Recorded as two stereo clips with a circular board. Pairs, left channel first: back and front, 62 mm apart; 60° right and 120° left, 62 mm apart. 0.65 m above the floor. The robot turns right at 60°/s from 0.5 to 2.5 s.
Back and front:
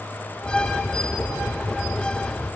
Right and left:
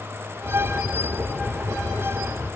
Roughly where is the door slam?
I don't hear a door slam.